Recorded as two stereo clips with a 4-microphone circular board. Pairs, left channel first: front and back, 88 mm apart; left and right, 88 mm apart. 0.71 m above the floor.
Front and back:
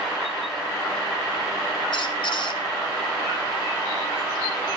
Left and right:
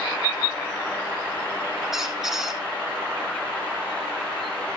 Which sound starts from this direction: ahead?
A squeak, at 1.9 s.